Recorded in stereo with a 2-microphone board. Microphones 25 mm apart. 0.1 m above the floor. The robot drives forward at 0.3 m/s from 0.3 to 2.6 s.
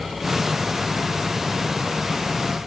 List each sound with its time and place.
Only background noise.